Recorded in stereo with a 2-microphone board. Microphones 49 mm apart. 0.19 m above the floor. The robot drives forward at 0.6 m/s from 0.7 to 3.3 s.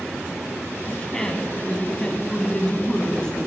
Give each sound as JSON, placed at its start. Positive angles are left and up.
{"t": 0.9, "sound": "a woman speaking", "side_deg": 15, "distance_m": 1.5}